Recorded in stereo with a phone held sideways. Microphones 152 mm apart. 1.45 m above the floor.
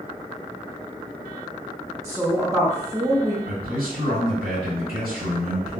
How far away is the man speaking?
About 1.7 m.